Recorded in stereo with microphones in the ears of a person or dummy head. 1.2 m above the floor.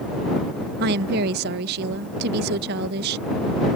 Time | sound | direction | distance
0.8 | a woman speaking | 60° right (ahead or behind) | ?